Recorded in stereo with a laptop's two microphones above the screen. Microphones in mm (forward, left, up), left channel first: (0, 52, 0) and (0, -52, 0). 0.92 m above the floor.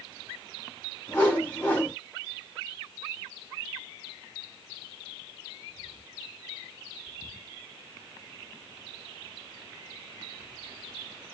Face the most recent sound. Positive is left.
turn(degrees=20)  # may be behind; listen again after turning